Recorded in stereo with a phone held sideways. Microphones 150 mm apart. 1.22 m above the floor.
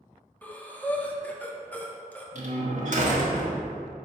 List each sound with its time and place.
0.4 s breathing: 10° left (ahead or behind), 0.9 m
2.4 s a door slam: 55° right (ahead or behind), 1.5 m